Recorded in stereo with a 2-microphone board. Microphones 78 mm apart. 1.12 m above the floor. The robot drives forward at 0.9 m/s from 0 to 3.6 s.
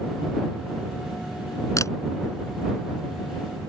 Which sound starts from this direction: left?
A camera shutter, at 1.8 s.